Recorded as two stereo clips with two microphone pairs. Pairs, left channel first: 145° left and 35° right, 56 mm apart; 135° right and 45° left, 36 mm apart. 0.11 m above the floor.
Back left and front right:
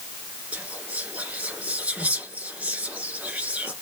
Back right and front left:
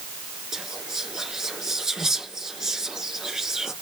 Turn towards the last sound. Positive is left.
turn(degrees=-15)